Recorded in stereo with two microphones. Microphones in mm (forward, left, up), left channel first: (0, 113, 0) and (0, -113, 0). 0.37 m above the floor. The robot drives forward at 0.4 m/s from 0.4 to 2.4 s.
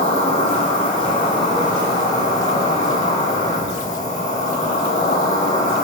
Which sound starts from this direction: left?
An insect, at 0.0 s.